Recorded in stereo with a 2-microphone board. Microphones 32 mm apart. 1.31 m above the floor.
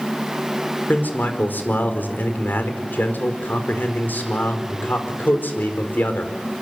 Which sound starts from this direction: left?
A man speaking, at 0.9 s.